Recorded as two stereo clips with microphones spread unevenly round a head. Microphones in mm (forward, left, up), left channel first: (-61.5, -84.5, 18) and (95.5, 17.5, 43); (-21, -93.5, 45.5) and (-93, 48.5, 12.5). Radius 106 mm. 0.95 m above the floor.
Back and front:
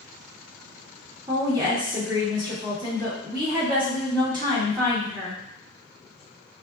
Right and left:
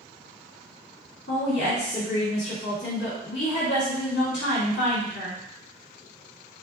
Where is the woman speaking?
40° right, 2 m.